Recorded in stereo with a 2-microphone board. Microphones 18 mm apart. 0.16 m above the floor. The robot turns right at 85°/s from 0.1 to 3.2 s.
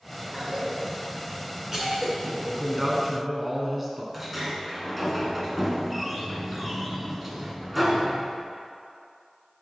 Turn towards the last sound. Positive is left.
turn(degrees=0)  # may be behind; listen again after turning